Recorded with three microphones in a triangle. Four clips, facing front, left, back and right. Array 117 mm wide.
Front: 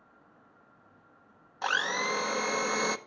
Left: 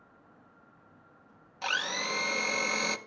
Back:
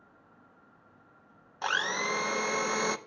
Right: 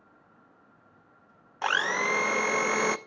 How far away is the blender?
About 0.8 m.